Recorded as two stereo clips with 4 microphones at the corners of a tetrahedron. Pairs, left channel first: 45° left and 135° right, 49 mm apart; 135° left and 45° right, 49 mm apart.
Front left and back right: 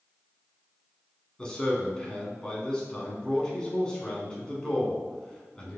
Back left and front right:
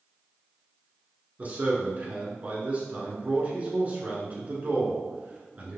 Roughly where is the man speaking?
Ahead.